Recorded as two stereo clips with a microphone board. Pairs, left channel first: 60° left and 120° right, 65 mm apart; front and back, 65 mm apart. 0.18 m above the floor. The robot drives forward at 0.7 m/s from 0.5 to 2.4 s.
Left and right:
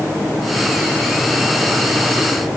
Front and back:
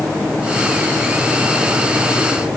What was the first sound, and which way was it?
Only background noise.